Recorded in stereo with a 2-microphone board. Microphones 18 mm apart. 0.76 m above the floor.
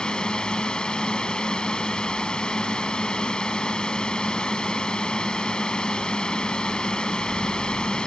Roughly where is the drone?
Left.